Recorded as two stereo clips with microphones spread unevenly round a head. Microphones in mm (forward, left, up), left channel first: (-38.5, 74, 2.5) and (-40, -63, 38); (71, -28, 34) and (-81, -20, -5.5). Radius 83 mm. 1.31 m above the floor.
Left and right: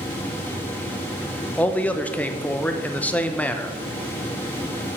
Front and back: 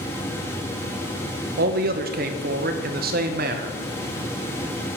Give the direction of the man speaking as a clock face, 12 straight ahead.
7 o'clock.